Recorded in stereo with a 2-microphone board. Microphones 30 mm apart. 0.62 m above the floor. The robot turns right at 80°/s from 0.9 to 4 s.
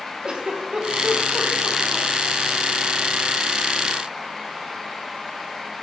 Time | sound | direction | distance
0.2 | a giggle | 35° right (ahead or behind) | 0.9 m